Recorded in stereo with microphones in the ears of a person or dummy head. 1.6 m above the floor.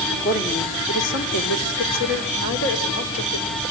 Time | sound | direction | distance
0.1 | a woman speaking | 50° left (ahead or behind) | 3 m